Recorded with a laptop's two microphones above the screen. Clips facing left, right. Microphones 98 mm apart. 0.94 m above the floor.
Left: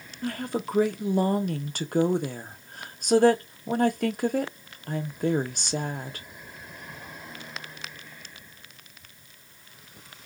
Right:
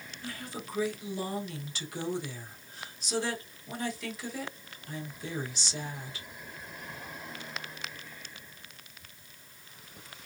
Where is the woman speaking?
55° left (ahead or behind), 0.8 m.